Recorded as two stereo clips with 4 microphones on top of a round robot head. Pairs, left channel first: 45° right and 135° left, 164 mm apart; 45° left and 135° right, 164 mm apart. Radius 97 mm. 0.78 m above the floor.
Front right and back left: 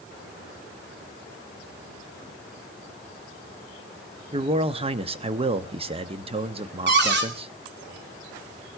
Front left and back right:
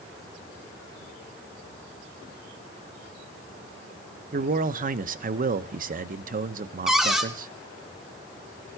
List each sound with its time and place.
4.3 s a man speaking: 170° right, 0.9 m
6.9 s a cupboard door: 135° left, 2.5 m